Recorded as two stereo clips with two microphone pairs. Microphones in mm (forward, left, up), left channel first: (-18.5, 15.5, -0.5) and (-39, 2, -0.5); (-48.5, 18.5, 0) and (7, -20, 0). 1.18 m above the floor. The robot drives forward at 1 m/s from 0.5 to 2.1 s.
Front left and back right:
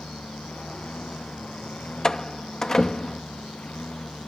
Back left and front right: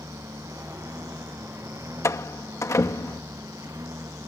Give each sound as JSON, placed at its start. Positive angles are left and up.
{"t": 0.0, "sound": "a lawn mower", "azimuth_deg": 5}
{"t": 2.0, "sound": "a door slam", "azimuth_deg": 100}